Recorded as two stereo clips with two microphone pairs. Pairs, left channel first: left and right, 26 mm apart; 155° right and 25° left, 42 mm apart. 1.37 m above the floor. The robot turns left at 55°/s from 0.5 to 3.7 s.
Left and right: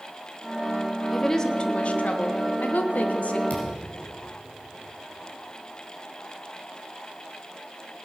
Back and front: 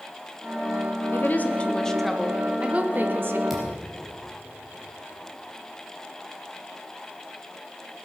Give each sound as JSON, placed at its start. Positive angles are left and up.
{"t": 1.1, "sound": "a woman speaking", "azimuth_deg": 170, "distance_m": 1.3}
{"t": 3.5, "sound": "a thud", "azimuth_deg": 115, "distance_m": 3.5}